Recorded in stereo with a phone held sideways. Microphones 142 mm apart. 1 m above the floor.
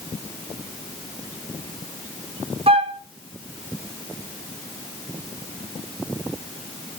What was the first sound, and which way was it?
A flute, 45° right (ahead or behind).